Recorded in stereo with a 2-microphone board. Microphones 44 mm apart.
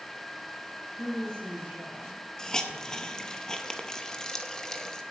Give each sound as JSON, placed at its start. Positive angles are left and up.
{"t": 1.0, "sound": "a woman speaking", "side_deg": -75, "distance_m": 5.5}
{"t": 2.4, "sound": "a hiss", "side_deg": 15, "distance_m": 0.7}